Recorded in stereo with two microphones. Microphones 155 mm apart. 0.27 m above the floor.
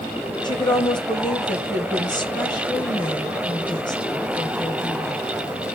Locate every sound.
0.4 s a woman speaking: 30° left (ahead or behind), 1.5 m